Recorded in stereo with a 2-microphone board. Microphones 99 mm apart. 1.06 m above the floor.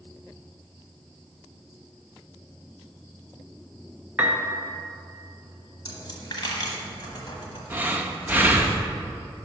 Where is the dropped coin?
50° left (ahead or behind), 1.2 m.